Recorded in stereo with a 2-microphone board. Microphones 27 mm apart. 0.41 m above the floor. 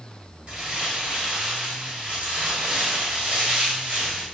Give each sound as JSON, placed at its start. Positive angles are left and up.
{"t": 0.5, "sound": "crumpling", "side_deg": -45, "distance_m": 1.4}